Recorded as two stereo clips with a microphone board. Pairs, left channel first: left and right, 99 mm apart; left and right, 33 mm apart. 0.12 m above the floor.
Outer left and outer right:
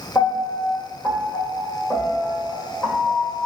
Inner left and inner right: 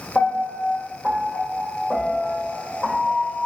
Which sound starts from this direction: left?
A piano, at 0.1 s.